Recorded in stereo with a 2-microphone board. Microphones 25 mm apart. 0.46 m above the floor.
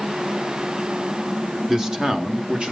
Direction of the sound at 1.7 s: 20° right (ahead or behind).